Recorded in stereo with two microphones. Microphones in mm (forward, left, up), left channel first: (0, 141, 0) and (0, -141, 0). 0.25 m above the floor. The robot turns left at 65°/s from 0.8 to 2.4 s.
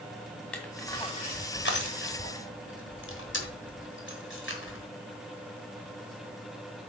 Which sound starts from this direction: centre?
Crushing, at 0.5 s.